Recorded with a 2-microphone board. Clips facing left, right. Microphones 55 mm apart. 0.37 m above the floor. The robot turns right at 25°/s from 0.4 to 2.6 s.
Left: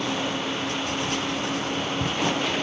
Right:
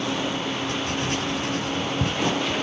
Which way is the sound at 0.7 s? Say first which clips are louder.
Right 1 dB; 50° right (ahead or behind).